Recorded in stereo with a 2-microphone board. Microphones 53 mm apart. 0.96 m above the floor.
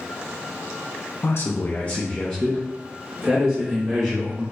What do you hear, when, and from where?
1.2 s a man speaking: 55° left (ahead or behind), 0.5 m; by 4.4 s 15° right (ahead or behind), 1.5 m